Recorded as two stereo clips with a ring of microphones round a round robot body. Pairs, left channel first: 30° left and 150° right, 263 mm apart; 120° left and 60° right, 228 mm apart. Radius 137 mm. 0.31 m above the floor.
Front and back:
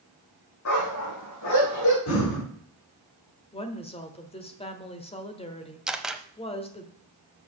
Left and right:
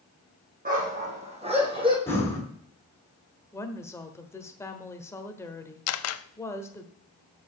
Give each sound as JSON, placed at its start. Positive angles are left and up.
{"t": 0.7, "sound": "a dog barking", "azimuth_deg": -5, "distance_m": 4.0}
{"t": 2.1, "sound": "breathing", "azimuth_deg": 40, "distance_m": 3.0}
{"t": 3.5, "sound": "a woman speaking", "azimuth_deg": 60, "distance_m": 1.2}
{"t": 5.9, "sound": "a camera shutter", "azimuth_deg": 125, "distance_m": 0.6}